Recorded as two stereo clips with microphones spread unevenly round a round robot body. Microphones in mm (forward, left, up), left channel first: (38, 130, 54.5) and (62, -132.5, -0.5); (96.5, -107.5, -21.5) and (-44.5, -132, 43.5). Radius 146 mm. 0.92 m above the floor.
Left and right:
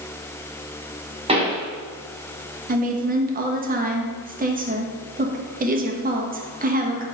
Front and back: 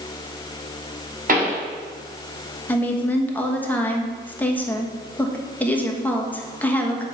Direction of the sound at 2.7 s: 45° right.